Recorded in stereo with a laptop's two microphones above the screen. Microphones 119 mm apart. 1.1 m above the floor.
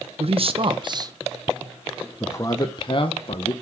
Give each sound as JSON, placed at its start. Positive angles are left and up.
{"t": 0.2, "sound": "a man speaking", "side_deg": -55, "distance_m": 1.2}